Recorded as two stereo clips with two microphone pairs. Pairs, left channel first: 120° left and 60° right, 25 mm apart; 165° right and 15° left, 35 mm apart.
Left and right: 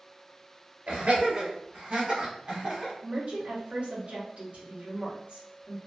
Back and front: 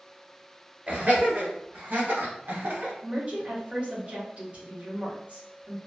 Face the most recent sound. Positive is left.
turn(degrees=-30)